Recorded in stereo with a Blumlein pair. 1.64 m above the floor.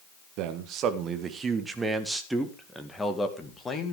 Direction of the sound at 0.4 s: 40° right.